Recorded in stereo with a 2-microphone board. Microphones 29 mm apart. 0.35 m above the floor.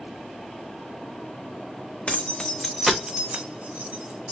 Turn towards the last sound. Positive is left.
turn(degrees=-60)  # may be behind; listen again after turning